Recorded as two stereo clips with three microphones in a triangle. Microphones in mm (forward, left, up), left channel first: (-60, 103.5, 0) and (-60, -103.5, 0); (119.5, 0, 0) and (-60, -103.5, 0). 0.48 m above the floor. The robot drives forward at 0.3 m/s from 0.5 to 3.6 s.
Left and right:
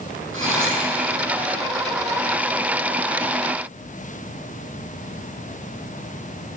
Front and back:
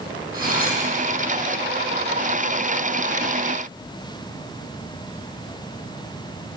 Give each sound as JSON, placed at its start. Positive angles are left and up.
{"t": 0.3, "sound": "cutlery clinking", "azimuth_deg": -105, "distance_m": 9.5}